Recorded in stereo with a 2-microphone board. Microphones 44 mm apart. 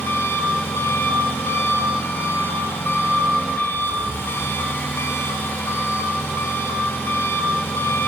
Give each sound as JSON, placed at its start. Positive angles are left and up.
{"t": 0.0, "sound": "an engine running", "side_deg": 60, "distance_m": 0.7}